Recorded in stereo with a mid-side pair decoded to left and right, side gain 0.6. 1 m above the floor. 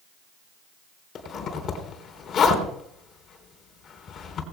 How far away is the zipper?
About 3.5 m.